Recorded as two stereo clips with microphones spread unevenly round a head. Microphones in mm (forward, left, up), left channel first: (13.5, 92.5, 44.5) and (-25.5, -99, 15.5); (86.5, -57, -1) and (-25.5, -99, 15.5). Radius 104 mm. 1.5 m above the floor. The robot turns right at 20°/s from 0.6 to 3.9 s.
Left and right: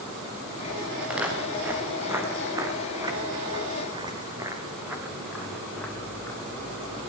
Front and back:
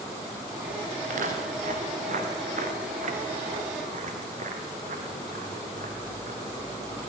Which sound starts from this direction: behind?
Footsteps, at 1.0 s.